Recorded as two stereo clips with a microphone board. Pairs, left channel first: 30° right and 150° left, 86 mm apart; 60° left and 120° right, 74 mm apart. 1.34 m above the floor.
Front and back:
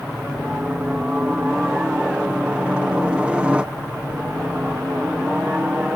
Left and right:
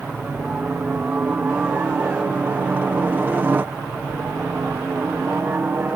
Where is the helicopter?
155° right; by 6.0 s 145° right.